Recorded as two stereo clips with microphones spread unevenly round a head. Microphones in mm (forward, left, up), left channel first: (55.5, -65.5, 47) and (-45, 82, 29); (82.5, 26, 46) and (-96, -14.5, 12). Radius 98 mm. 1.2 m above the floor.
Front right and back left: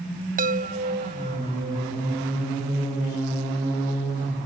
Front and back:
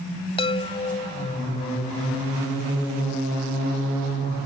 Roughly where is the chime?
Left.